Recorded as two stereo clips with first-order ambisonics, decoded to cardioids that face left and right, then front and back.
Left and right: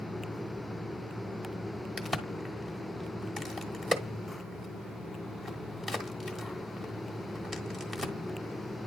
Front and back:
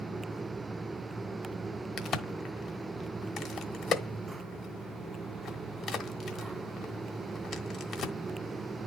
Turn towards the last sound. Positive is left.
turn(degrees=-5)